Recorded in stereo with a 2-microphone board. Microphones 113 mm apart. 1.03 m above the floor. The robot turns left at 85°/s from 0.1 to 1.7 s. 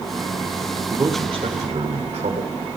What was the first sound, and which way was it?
A man speaking, 20° right (ahead or behind).